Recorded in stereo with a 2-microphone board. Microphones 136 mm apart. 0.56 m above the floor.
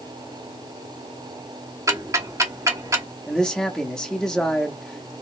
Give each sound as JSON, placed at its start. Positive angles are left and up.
{"t": 1.9, "sound": "ticking", "side_deg": -25, "distance_m": 0.9}
{"t": 3.3, "sound": "a man speaking", "side_deg": 5, "distance_m": 0.8}